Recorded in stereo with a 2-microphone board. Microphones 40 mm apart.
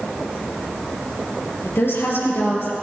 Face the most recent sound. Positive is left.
turn(degrees=65)  # may be behind; listen again after turning